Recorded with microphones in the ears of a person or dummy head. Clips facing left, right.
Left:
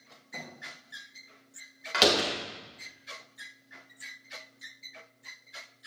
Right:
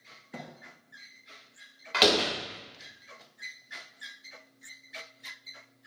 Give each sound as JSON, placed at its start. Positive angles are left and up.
{"t": 0.3, "sound": "a thud", "side_deg": -25, "distance_m": 1.0}
{"t": 1.9, "sound": "a door slam", "side_deg": 5, "distance_m": 1.3}